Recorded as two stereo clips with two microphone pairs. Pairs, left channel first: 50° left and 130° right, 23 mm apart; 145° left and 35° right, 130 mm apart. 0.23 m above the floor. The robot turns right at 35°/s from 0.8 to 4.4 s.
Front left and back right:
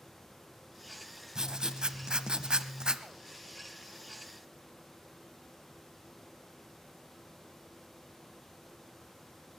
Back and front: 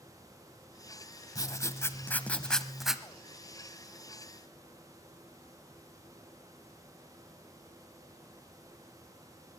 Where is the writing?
175° right, 0.7 m; by 3.0 s 115° right, 0.7 m.